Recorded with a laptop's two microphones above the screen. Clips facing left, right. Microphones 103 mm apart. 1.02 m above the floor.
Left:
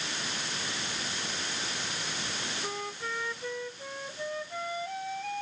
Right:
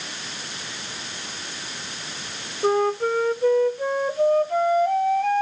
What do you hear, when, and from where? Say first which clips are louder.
2.6 s a flute: right 21 dB; 65° right (ahead or behind)